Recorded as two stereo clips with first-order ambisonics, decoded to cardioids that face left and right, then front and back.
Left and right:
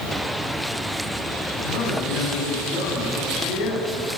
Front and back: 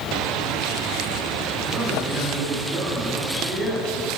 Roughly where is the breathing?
I don't hear breathing.